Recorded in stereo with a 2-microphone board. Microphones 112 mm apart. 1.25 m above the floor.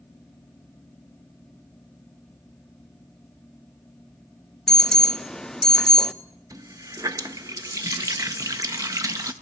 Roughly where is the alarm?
Centre.